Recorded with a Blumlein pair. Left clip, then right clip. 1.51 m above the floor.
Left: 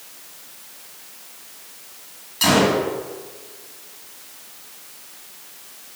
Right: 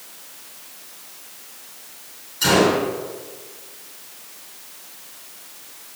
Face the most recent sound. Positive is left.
turn(degrees=55)